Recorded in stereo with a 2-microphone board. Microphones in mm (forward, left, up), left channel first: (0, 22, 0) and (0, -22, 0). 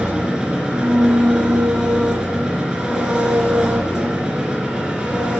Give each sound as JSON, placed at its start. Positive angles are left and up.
{"t": 0.0, "sound": "an engine running", "side_deg": -20, "distance_m": 3.0}